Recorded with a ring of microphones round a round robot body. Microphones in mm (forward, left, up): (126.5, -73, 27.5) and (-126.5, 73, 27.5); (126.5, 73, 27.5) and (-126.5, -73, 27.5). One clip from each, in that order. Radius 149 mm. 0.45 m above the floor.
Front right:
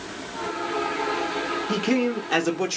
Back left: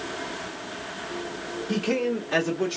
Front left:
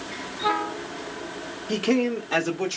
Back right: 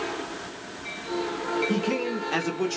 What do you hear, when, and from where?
1.7 s a man speaking: 20° left, 0.8 m; by 2.8 s 65° right, 1.0 m